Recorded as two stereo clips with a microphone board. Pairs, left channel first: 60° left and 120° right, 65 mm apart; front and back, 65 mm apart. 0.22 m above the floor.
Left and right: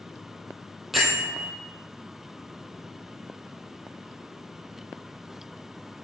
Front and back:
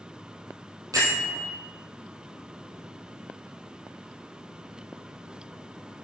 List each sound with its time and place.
0.9 s a bell: 150° left, 2.5 m